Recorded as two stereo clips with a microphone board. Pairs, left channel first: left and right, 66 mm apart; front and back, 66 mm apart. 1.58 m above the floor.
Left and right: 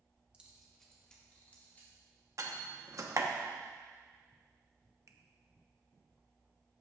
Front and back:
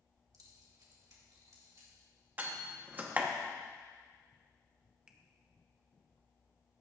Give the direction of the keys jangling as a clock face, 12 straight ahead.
5 o'clock.